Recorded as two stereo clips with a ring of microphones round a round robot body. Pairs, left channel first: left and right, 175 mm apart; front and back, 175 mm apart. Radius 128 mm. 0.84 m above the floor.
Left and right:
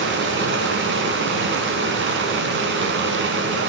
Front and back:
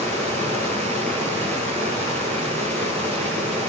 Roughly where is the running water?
Right.